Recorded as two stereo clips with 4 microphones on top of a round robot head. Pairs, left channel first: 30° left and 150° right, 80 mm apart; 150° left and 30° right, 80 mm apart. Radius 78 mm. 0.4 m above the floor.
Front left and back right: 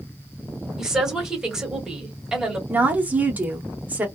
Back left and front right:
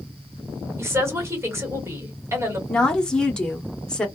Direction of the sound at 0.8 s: 70° right.